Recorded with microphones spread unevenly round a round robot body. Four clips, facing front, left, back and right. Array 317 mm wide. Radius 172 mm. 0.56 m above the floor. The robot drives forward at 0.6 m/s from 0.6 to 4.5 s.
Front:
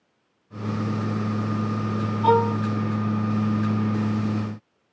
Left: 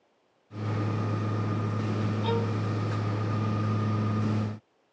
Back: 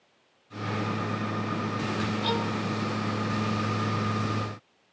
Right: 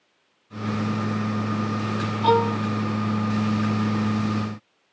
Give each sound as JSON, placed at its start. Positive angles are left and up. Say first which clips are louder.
{"t": 2.2, "sound": "a violin", "louder": "right 13 dB, front 14 dB", "azimuth_deg": -50}